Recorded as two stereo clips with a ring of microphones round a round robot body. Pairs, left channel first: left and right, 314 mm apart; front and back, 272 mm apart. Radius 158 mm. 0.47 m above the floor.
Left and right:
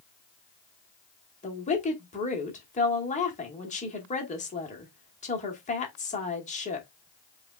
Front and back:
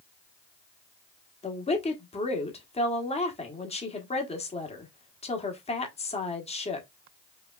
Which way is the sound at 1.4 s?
45° left.